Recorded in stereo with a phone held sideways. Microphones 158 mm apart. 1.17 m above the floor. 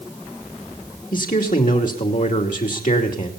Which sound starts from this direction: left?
A man speaking, at 1.1 s.